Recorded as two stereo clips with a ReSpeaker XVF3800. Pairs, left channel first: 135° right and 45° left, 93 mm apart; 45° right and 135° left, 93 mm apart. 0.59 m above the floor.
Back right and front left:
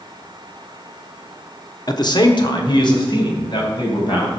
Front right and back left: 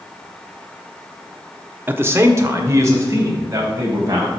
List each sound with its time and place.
1.9 s a man speaking: 165° right, 0.9 m; by 4.3 s 170° right, 4 m